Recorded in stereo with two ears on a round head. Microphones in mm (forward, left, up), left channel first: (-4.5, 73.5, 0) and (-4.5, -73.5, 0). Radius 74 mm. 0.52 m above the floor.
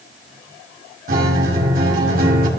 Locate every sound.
1.1 s a guitar: 60° right (ahead or behind), 2 m